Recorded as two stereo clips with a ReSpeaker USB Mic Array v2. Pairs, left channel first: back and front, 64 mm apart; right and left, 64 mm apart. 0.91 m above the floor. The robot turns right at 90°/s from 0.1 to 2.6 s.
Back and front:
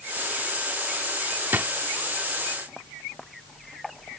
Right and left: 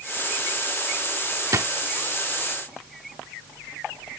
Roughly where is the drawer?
Ahead left.